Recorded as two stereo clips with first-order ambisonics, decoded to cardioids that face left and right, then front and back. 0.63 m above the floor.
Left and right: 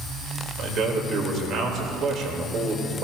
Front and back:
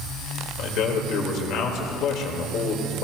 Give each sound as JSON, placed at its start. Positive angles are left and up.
{"t": 0.6, "sound": "a man speaking", "azimuth_deg": -40, "distance_m": 2.0}